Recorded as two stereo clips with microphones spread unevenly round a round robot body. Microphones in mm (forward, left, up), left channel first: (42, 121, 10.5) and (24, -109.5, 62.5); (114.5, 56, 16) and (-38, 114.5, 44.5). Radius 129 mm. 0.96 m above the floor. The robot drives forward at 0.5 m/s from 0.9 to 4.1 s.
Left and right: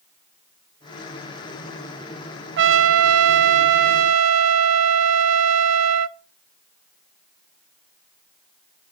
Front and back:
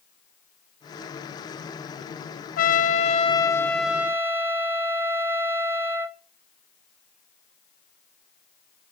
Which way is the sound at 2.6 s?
55° right.